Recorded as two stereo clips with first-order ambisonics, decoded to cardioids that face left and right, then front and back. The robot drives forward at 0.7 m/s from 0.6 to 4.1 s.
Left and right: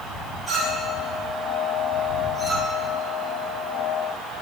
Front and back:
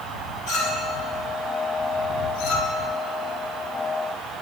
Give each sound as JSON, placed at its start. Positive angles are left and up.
{"t": 0.5, "sound": "a clink", "azimuth_deg": 5, "distance_m": 3.0}